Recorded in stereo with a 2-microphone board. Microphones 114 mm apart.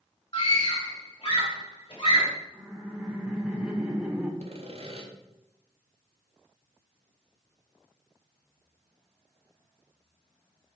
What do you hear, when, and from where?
0.3 s a scream: 45° left (ahead or behind), 4.5 m
2.5 s laughter: 10° right (ahead or behind), 2.5 m
4.4 s sawing: 65° right (ahead or behind), 1.5 m